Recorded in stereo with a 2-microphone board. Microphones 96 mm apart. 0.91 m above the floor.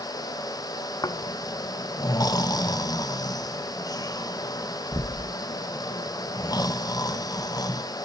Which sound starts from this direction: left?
Snoring, at 1.0 s.